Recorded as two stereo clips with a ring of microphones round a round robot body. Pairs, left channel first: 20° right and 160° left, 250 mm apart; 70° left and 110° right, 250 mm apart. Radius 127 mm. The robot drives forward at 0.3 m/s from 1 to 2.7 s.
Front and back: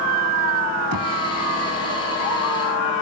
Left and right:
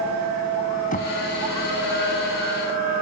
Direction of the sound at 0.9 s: 130° left.